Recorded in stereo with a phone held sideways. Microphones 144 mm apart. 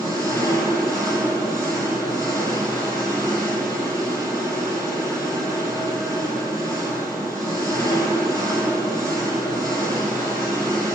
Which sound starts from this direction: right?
An engine running, at 0.0 s.